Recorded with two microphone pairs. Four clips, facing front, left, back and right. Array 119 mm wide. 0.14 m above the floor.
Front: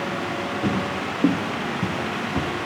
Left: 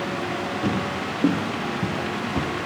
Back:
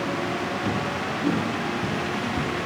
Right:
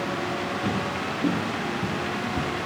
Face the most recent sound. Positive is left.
turn(degrees=60)